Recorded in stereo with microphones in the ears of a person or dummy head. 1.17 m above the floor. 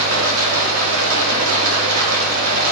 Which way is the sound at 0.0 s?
85° right.